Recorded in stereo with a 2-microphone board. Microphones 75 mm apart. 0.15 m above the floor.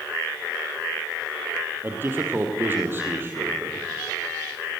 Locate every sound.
1.8 s a man speaking: 30° right (ahead or behind), 4.5 m